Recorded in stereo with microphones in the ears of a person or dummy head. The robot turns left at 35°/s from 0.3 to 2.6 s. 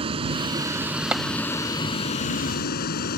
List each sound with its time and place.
0.0 s a vehicle: 155° right; by 3.2 s 125° left
1.1 s tapping: 10° right (ahead or behind)